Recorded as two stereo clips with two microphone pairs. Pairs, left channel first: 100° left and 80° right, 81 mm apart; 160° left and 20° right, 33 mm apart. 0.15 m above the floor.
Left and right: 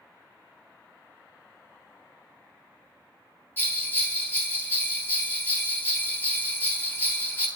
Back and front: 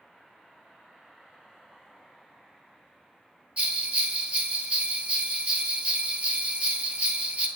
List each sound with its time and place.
3.6 s a bell: 35° left, 0.7 m